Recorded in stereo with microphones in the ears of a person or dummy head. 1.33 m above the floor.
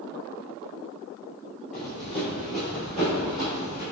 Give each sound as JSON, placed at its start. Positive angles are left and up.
{"t": 1.7, "sound": "running footsteps", "side_deg": -5, "distance_m": 1.8}